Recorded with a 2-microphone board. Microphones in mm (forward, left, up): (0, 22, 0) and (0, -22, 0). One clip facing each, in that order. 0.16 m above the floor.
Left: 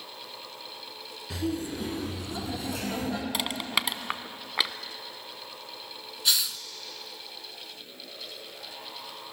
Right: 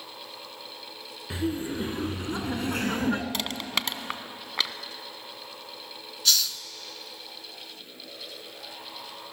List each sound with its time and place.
1.3 s laughter: 25° right (ahead or behind), 2.5 m; by 3.2 s 45° right (ahead or behind), 2.5 m
3.3 s crushing: 10° left (ahead or behind), 0.7 m
6.2 s a hiss: 20° left (ahead or behind), 0.7 m